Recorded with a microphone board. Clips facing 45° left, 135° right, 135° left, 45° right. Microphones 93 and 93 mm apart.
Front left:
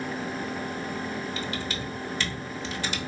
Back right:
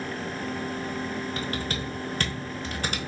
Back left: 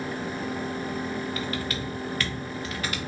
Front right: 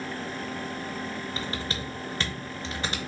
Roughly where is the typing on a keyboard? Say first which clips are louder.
Back right 1 dB, back left 3 dB; right.